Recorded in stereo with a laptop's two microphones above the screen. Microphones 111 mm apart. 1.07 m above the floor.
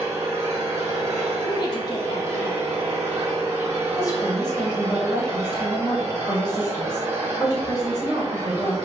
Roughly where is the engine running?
Right.